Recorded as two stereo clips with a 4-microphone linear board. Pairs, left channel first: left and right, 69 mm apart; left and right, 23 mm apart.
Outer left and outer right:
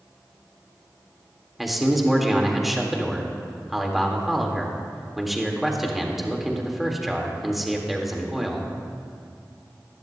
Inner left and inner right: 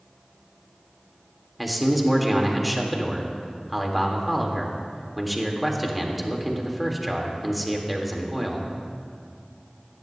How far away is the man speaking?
About 1.5 m.